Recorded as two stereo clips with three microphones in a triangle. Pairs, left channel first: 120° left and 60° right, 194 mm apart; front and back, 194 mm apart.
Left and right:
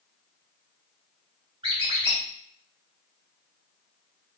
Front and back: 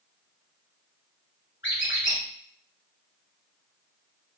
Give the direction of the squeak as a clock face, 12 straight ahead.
12 o'clock.